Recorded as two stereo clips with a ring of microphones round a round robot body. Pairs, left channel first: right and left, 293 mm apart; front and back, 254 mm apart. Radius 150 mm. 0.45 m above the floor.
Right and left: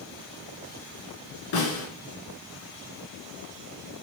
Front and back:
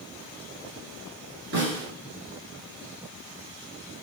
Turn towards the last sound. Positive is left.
turn(degrees=-120)